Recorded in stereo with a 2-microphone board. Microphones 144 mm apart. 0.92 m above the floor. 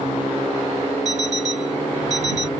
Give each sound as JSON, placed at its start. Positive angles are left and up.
{"t": 1.1, "sound": "an alarm clock", "side_deg": -60}